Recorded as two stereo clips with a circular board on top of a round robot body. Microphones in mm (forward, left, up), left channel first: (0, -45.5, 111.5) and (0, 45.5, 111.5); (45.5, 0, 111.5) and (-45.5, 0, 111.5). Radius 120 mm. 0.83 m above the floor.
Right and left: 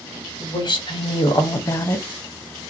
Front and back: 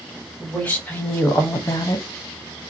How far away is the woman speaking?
About 1.9 m.